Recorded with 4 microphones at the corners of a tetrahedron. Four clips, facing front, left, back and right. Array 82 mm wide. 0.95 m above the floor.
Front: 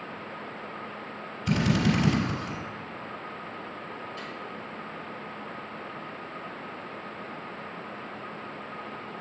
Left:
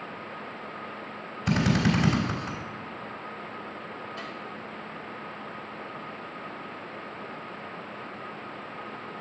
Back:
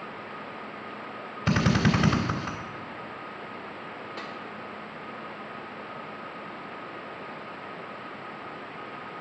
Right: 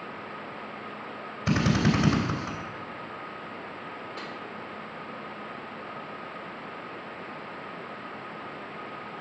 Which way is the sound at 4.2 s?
135° right.